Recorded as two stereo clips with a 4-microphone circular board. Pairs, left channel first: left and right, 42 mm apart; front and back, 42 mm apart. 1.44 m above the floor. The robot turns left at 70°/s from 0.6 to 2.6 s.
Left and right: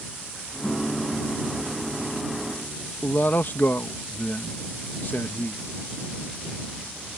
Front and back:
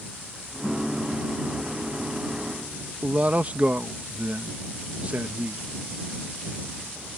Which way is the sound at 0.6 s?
80° left.